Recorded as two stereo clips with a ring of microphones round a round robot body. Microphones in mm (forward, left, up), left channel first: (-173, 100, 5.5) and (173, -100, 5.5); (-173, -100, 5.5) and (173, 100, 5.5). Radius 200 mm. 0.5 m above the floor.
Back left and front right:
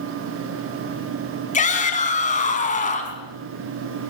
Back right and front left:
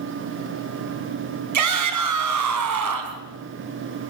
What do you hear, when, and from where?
1.5 s a shout: 80° left, 4 m